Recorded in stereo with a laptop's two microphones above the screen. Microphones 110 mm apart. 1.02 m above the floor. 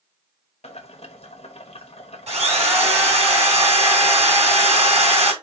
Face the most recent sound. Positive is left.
turn(degrees=-85)